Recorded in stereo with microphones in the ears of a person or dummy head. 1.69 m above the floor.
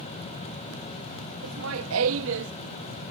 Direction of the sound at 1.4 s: 80° right.